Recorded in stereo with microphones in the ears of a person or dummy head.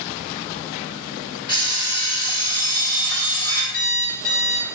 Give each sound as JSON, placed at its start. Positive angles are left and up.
{"t": 1.5, "sound": "an alarm clock", "side_deg": 25, "distance_m": 1.8}
{"t": 3.7, "sound": "an alarm clock", "side_deg": 50, "distance_m": 1.1}